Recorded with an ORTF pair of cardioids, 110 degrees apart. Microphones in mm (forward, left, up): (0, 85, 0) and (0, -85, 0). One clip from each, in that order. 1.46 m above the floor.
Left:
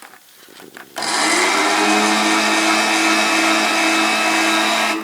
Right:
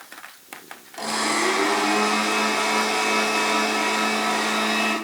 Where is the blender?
60° left, 3 m.